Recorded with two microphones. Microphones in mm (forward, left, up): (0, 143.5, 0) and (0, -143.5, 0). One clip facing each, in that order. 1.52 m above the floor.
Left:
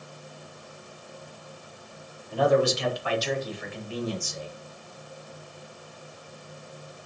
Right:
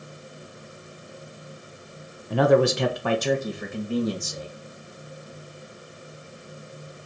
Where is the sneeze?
I don't hear a sneeze.